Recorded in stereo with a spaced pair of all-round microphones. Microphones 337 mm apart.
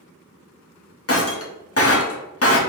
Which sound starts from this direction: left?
Breaking glass, at 1.1 s.